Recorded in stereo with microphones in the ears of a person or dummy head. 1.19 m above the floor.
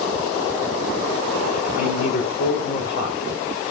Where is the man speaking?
60° left (ahead or behind), 3.5 m.